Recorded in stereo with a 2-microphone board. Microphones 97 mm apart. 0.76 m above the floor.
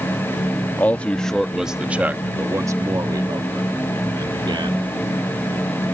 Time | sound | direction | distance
0.8 | a man speaking | 20° left (ahead or behind) | ?